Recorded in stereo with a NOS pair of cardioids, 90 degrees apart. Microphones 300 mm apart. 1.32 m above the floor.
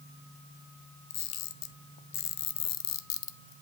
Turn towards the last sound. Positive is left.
turn(degrees=60)